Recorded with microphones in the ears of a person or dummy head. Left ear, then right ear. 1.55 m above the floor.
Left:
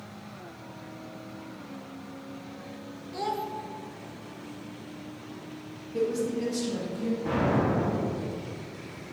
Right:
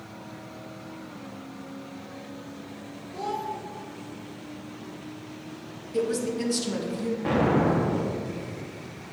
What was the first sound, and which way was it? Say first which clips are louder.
A child speaking: even; 25° left (ahead or behind).